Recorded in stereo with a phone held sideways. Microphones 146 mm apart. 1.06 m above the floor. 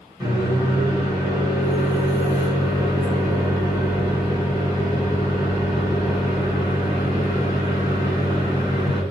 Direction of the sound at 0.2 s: 25° right (ahead or behind).